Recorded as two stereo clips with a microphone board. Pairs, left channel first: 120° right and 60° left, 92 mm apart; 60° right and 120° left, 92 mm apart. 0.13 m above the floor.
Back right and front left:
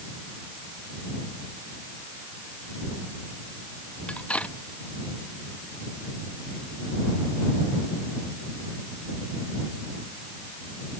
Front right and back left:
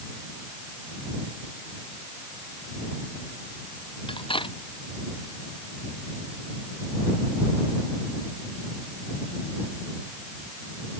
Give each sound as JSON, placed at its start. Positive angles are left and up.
{"t": 4.1, "sound": "cutlery clinking", "azimuth_deg": -45}